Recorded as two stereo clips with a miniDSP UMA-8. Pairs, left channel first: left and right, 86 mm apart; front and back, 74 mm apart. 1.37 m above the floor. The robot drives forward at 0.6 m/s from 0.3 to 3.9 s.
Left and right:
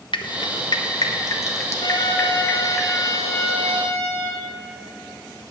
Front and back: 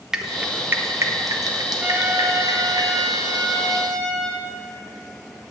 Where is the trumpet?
115° left, 0.8 m; by 4.4 s 155° left, 1.8 m.